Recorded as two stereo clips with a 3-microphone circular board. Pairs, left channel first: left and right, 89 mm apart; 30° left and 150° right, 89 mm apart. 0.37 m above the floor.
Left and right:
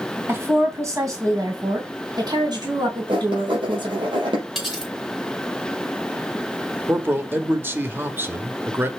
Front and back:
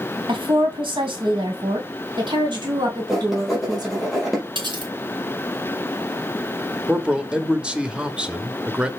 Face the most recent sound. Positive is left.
turn(degrees=-85)